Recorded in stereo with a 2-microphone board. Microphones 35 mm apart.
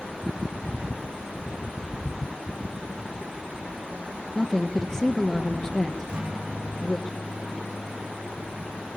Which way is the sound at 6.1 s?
30° right (ahead or behind).